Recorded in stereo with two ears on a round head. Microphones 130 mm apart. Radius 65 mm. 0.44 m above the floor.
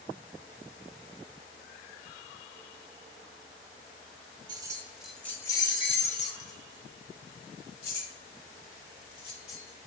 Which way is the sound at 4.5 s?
30° right (ahead or behind).